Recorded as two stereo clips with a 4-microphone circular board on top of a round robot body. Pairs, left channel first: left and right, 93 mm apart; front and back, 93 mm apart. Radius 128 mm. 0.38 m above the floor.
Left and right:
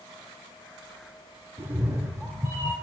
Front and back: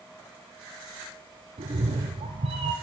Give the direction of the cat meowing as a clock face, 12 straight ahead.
5 o'clock.